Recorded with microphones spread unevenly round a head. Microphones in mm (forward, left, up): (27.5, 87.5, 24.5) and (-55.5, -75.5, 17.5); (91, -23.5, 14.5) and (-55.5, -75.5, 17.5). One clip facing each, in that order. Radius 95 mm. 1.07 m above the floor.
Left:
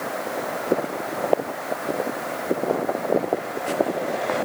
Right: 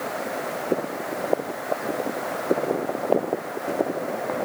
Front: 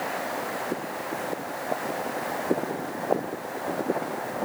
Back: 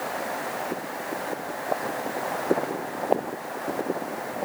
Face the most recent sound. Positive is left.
No sound to turn to.